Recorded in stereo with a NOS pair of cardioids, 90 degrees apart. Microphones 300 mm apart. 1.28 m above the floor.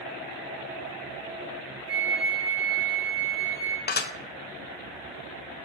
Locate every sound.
1.9 s a flute: 10° right, 3 m
3.9 s dishes clattering: 35° left, 0.7 m